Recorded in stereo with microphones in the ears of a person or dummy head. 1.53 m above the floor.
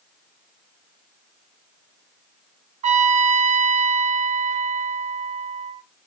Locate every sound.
2.8 s a trumpet: 35° right (ahead or behind), 0.6 m